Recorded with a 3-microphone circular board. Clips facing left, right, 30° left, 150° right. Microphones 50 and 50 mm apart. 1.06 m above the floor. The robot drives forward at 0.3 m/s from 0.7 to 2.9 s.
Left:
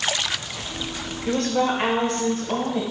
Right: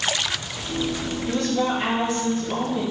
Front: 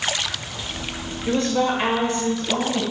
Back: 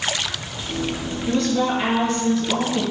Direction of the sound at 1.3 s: 80° left.